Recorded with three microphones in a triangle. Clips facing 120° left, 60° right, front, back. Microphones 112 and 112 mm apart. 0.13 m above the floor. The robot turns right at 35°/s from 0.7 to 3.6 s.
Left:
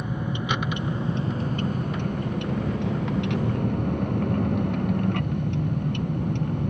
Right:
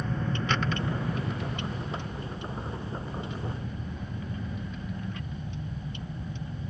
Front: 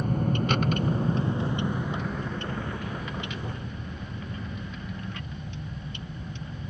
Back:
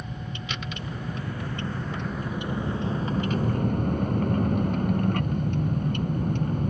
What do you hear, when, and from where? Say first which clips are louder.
0.0 s a vehicle: left 2 dB, front 10 dB; 40° left; by 6.7 s 145° left